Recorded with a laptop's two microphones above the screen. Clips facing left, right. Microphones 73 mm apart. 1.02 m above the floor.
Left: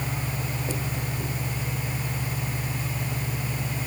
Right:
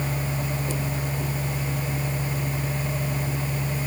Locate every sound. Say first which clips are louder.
0.0 s a machine running: right 3 dB; 45° right (ahead or behind)